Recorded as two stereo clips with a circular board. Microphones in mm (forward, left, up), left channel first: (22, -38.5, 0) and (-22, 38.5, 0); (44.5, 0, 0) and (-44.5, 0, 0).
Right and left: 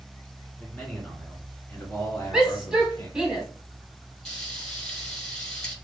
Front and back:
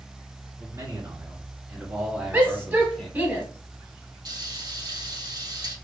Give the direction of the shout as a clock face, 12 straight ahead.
6 o'clock.